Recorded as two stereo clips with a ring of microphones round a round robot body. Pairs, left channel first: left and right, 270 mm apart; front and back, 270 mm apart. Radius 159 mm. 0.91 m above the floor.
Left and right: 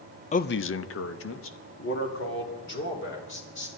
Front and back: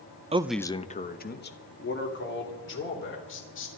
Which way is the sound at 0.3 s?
130° left.